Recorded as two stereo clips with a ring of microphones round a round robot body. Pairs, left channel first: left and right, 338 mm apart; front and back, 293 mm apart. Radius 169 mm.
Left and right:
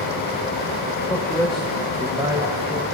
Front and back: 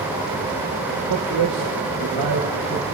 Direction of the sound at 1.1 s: 170° left.